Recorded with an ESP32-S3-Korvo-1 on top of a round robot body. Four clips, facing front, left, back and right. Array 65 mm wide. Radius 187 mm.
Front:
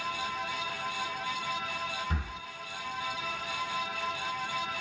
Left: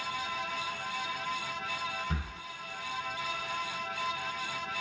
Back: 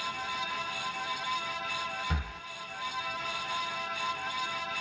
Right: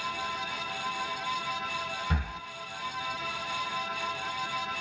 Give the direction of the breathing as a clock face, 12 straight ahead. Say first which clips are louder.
Right 4 dB, even; 4 o'clock.